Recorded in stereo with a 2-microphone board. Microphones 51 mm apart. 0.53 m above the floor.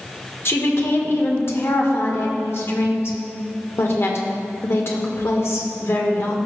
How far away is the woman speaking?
About 1.2 m.